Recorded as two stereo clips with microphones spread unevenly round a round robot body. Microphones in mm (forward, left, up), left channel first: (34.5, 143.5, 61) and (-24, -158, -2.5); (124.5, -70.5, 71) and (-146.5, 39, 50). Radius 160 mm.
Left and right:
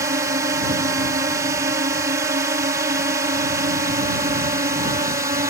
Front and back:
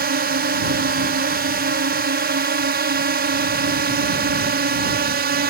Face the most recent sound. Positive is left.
turn(degrees=-165)